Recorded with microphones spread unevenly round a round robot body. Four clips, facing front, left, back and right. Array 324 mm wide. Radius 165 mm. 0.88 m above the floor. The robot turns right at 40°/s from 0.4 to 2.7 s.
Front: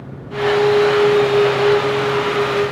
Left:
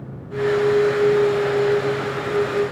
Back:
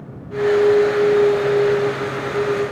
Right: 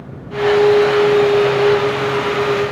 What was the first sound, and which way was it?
Only background noise.